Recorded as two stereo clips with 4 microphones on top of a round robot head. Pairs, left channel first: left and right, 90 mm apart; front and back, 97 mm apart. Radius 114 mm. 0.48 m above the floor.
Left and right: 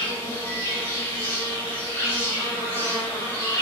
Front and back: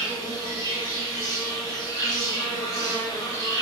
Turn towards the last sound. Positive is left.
turn(degrees=35)